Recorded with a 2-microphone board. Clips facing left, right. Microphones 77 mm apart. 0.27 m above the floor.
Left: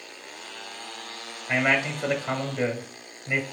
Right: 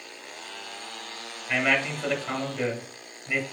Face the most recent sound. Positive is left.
turn(degrees=15)  # may be behind; listen again after turning